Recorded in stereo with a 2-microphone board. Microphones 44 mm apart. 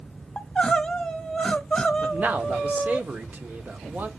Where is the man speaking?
40° right (ahead or behind), 1.0 m.